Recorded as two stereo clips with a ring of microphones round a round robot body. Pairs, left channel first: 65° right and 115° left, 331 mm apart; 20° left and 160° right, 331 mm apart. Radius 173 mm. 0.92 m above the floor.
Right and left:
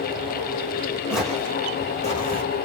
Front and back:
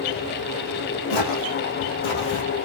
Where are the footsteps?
25° left, 2.5 m; by 2.4 s 5° right, 3 m.